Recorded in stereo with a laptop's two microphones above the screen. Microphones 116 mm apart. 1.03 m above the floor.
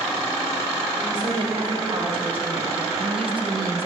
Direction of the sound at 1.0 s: 50° right (ahead or behind).